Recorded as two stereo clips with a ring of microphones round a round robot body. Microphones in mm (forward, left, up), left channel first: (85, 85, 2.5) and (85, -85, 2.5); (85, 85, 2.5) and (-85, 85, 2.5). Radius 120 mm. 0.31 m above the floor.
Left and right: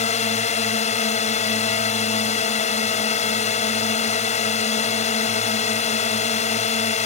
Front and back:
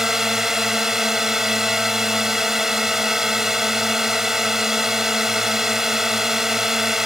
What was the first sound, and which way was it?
A drone, 95° left.